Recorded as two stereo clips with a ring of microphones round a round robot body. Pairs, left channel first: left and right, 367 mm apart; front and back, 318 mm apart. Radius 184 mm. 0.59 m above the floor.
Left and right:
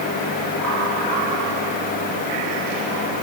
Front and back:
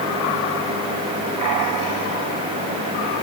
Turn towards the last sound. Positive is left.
No sound to turn to.